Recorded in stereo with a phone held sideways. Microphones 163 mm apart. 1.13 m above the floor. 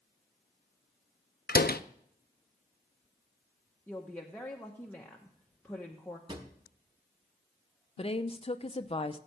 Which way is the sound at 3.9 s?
10° left (ahead or behind).